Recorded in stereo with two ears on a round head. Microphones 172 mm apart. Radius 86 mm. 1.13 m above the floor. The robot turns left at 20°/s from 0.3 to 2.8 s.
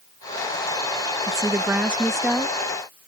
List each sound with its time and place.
1.3 s a woman speaking: 20° right (ahead or behind); by 2.6 s 10° left (ahead or behind)